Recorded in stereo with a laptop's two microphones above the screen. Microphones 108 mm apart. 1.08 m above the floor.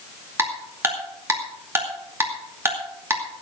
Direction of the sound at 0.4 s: 25° right (ahead or behind).